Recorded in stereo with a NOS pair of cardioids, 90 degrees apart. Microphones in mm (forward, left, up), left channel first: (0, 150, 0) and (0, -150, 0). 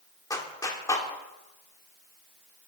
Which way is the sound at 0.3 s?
10° left.